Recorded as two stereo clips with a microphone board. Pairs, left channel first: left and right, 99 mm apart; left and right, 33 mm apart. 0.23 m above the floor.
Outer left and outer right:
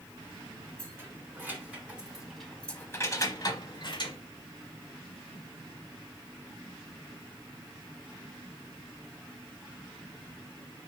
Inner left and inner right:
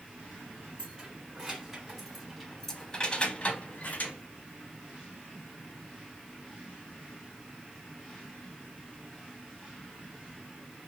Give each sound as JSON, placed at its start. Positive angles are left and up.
{"t": 0.8, "sound": "keys jangling", "side_deg": -25, "distance_m": 1.6}